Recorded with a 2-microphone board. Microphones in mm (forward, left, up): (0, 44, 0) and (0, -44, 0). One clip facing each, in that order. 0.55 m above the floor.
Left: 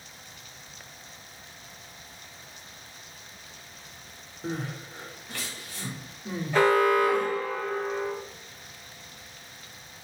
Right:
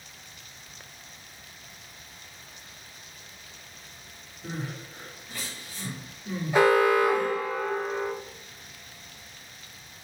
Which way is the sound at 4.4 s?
75° left (ahead or behind).